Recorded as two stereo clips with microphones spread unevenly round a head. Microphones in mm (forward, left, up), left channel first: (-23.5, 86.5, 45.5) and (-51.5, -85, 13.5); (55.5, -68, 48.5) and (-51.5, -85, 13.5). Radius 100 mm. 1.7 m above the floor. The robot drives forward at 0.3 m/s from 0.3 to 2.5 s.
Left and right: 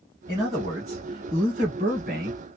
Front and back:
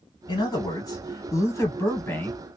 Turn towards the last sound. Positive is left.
turn(degrees=-45)